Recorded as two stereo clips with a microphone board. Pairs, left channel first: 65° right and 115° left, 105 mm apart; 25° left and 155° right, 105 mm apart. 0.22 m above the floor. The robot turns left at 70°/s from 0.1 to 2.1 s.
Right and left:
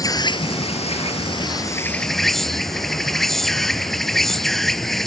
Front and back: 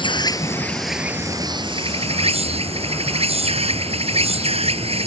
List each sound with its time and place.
0.0 s an insect: 15° right; by 5.1 s 155° right